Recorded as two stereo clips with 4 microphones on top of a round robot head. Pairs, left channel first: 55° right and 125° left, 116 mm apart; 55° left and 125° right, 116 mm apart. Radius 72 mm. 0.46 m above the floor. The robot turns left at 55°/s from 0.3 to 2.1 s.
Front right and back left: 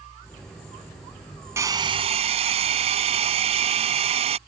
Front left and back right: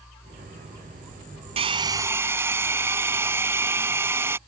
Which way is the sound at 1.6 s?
165° right.